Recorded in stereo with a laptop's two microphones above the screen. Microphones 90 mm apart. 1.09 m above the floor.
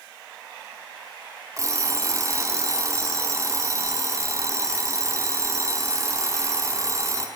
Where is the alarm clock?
35° right (ahead or behind), 0.7 m.